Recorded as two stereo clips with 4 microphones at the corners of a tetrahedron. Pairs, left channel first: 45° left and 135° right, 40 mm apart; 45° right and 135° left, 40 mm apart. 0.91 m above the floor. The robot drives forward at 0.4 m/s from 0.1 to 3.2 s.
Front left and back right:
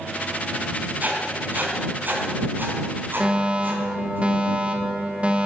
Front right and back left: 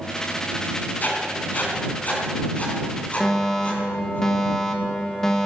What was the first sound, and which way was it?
Writing, 90° right.